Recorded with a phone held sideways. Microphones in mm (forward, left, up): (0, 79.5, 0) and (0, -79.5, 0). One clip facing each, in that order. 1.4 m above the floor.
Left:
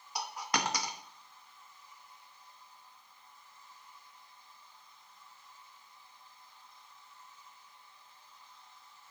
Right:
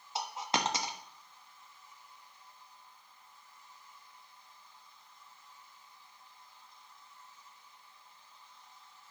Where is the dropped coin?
25° right (ahead or behind), 0.9 m.